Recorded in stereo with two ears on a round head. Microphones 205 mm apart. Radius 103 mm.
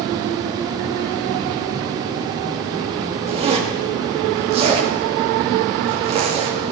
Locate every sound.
3.3 s a zipper: 25° right (ahead or behind), 2 m